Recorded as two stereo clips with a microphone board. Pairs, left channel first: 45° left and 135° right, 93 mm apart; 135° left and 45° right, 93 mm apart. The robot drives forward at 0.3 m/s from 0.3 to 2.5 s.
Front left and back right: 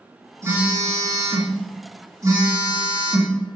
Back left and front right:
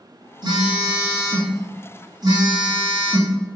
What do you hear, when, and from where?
0.4 s a phone buzzing: 80° right, 4.5 m; by 3.4 s 85° right, 4.5 m